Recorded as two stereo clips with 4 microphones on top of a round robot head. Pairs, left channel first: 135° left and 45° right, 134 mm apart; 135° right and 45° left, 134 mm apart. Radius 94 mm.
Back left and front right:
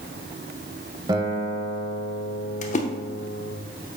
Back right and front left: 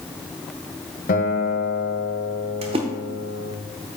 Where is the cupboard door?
I don't hear a cupboard door.